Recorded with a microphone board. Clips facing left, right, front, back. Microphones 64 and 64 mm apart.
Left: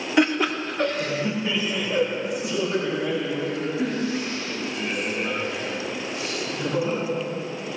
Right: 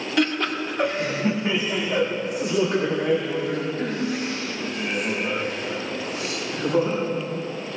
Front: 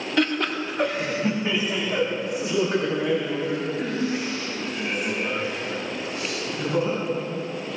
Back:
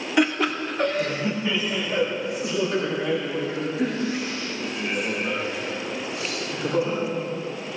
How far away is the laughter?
About 1.2 m.